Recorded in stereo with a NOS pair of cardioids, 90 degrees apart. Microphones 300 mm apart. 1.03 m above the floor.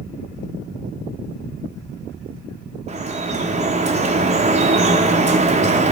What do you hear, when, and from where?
2.9 s dripping: 20° right, 0.8 m